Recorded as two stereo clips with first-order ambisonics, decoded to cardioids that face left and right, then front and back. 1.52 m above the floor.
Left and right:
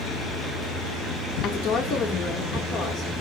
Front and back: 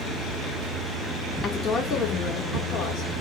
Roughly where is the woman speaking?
Ahead left.